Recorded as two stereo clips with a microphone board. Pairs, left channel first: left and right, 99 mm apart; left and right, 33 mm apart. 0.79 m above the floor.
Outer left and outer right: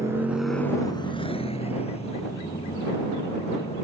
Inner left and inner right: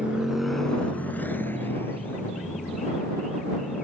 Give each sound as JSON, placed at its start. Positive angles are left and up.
{"t": 0.0, "sound": "a motorcycle", "side_deg": -30}